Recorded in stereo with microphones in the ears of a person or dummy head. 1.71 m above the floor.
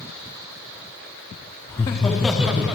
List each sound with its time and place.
1.7 s laughter: 15° left (ahead or behind), 0.5 m; by 2.8 s 10° right (ahead or behind), 0.8 m